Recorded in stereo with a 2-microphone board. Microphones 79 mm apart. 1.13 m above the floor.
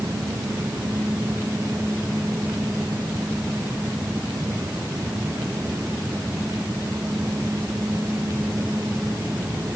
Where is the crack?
No crack in this recording.